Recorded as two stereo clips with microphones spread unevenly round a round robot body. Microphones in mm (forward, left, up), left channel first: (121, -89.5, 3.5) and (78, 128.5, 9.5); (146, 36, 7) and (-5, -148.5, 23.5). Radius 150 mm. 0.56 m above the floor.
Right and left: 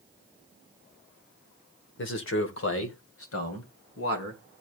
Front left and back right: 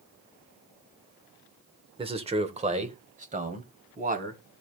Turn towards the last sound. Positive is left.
turn(degrees=-75)